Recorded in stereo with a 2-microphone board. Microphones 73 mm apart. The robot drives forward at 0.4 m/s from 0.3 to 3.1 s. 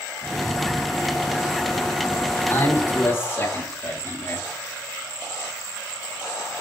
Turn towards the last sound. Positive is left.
turn(degrees=30)  # may be behind; listen again after turning